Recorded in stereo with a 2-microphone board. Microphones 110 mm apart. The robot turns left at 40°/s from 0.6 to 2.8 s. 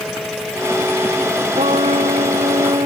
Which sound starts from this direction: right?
A trumpet, at 1.5 s.